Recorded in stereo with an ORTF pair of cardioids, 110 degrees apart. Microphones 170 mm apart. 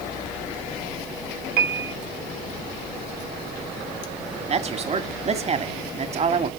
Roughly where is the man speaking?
Ahead right.